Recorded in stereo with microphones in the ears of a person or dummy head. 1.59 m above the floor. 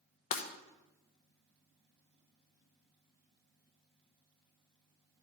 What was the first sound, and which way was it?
Breaking glass, 45° left (ahead or behind).